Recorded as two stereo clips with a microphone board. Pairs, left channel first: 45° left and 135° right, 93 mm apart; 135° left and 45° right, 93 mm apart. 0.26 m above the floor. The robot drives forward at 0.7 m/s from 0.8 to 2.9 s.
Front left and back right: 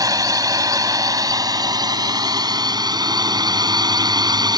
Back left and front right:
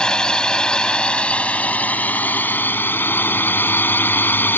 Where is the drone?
150° right; by 4.6 s 160° right.